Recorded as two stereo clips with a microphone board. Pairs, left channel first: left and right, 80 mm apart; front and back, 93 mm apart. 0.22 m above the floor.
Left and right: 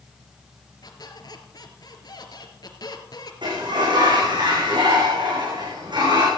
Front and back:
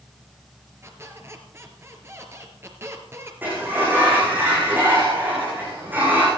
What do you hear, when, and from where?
0.8 s a squeak: 120° left, 2.5 m
3.4 s a sliding door: 110° right, 9.5 m